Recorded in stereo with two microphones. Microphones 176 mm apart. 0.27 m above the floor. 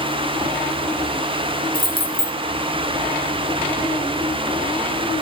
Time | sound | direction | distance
1.7 | keys jangling | 60° left (ahead or behind) | 3 m